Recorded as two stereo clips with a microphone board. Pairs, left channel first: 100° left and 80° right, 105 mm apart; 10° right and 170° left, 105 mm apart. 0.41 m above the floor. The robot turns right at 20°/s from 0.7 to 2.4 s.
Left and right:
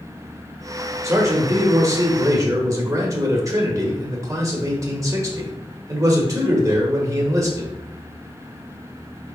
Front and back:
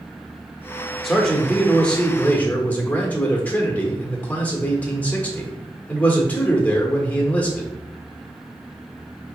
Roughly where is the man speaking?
Right.